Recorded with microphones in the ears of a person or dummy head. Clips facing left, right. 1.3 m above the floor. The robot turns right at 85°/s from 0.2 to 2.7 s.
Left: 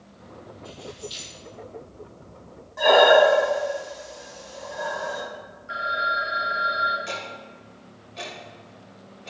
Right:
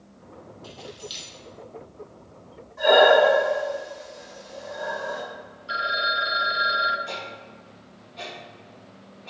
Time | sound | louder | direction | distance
0.6 | keys jangling | left 2 dB | 80° right | 3.5 m
2.8 | breathing | left 1 dB | 75° left (ahead or behind) | 3.5 m
5.7 | a phone ringing | even | 55° right (ahead or behind) | 1.1 m
7.1 | ticking | left 1 dB | 65° left (ahead or behind) | 2.5 m